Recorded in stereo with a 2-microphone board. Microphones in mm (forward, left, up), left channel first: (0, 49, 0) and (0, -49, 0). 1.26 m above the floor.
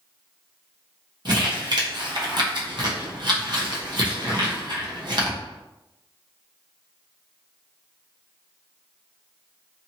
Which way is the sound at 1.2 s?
55° right (ahead or behind).